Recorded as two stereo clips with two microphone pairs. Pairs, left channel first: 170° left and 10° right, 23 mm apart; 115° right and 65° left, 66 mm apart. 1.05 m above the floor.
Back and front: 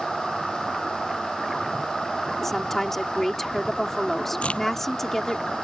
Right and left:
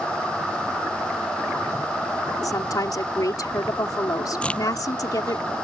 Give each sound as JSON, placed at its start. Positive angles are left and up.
{"t": 2.4, "sound": "a woman speaking", "azimuth_deg": -110}
{"t": 4.4, "sound": "a crack", "azimuth_deg": 175}